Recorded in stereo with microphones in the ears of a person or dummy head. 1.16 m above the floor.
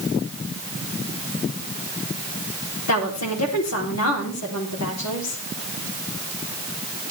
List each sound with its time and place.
2.9 s a woman speaking: 75° left (ahead or behind), 3.5 m